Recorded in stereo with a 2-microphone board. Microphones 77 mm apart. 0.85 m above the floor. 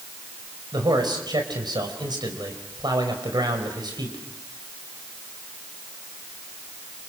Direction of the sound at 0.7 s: 70° right (ahead or behind).